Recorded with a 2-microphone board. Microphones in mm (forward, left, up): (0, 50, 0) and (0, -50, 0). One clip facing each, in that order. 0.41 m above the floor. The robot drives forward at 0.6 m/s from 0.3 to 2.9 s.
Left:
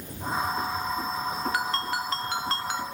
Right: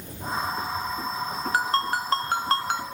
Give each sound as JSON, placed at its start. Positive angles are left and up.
{"t": 1.5, "sound": "a ringtone", "side_deg": -40, "distance_m": 1.4}